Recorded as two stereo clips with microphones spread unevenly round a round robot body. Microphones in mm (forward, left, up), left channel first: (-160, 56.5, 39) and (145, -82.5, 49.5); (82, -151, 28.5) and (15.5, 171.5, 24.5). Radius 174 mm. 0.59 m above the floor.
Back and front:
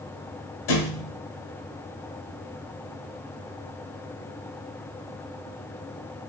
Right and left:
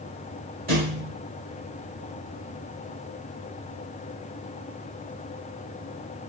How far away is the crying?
No crying in this recording.